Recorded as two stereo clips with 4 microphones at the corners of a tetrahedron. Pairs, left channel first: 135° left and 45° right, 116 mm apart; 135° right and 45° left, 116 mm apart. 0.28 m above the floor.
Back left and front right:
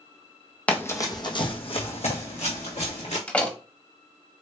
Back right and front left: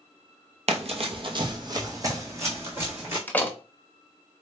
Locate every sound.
0.7 s running footsteps: 55° left, 0.6 m; by 3.2 s 115° left, 1.6 m
3.3 s a door slam: 175° right, 0.6 m